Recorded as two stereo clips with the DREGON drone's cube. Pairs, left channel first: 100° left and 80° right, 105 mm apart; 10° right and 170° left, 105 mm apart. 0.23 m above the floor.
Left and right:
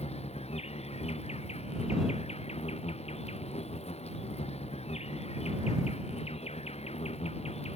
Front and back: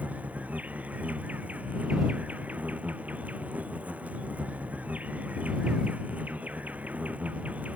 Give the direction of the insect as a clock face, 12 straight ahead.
9 o'clock.